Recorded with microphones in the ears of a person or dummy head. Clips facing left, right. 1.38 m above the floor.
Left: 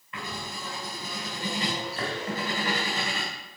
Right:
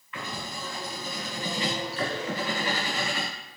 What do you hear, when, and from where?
0.1 s writing: 40° left (ahead or behind), 3 m